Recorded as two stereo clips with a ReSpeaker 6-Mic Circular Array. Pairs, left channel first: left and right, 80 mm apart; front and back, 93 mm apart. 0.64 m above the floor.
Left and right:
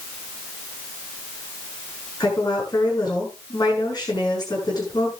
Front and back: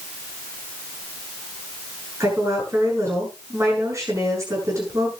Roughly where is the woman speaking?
Behind left.